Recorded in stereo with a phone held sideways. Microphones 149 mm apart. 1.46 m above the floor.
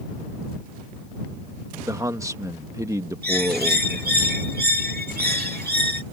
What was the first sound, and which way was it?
A man speaking, 20° right (ahead or behind).